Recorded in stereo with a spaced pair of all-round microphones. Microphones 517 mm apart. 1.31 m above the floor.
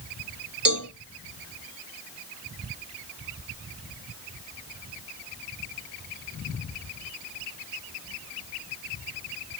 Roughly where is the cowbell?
Right.